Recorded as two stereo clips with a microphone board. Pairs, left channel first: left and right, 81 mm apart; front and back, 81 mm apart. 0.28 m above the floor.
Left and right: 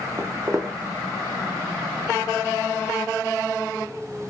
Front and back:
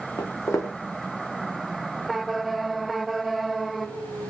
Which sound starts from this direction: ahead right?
Footsteps, at 0.2 s.